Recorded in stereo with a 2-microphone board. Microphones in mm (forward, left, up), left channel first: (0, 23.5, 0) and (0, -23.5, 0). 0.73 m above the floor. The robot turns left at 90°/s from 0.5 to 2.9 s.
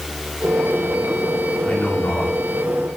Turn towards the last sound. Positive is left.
turn(degrees=30)